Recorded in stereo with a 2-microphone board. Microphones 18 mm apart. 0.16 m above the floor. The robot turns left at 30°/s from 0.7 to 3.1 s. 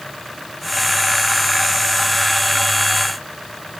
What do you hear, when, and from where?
Only background noise.